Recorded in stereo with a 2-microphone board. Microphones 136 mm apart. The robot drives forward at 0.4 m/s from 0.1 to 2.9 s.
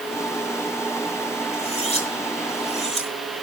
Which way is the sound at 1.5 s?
50° left (ahead or behind).